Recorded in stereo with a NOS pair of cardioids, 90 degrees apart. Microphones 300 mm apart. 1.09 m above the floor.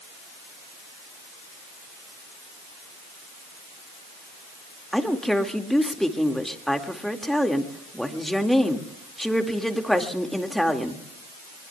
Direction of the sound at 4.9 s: Straight ahead.